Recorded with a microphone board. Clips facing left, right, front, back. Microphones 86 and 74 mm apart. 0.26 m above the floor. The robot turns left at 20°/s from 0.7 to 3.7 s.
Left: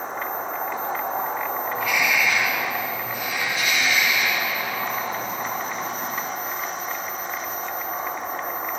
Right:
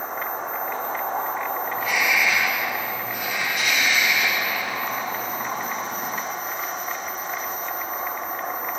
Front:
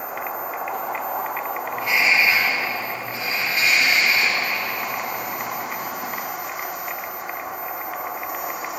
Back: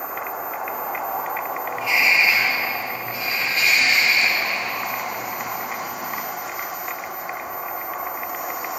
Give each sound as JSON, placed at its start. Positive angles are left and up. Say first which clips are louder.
{"t": 1.7, "sound": "a bird", "louder": "even, even", "azimuth_deg": -30, "distance_m": 5.5}